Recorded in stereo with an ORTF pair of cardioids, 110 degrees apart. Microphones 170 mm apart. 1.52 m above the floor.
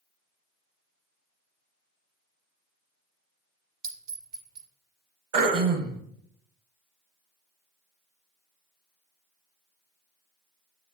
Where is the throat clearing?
65° right, 1.1 m.